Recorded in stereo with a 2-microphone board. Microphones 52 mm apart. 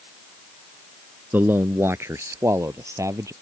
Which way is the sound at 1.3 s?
35° right (ahead or behind).